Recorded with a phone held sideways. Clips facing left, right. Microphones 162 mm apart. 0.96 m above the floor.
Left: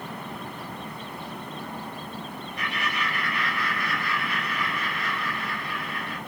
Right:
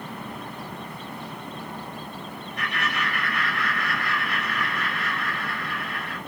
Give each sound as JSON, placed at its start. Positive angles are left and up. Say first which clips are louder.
{"t": 2.6, "sound": "laughter", "louder": "right 2 dB", "side_deg": -70, "distance_m": 2.5}